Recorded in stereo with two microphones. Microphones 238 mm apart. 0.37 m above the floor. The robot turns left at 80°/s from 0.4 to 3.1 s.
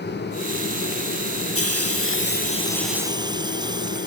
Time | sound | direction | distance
1.6 | a hiss | 105° left | ?